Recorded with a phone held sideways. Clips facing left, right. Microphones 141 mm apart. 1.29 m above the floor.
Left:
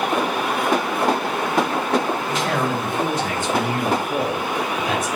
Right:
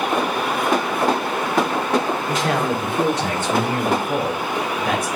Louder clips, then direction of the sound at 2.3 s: Right 3 dB; 70° right (ahead or behind).